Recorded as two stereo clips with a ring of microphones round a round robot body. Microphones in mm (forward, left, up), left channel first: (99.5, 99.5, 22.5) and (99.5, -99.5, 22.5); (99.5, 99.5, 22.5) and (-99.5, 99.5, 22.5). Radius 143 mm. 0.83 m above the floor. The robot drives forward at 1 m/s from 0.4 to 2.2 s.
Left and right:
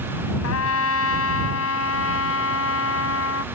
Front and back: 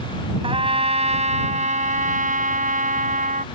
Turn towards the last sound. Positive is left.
turn(degrees=130)